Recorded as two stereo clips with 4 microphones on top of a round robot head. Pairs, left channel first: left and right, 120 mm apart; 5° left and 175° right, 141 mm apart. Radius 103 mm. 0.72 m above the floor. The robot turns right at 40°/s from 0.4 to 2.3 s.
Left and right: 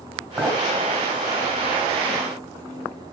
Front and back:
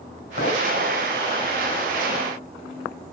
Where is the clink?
Straight ahead, 3 m; by 0.7 s 10° left, 3 m.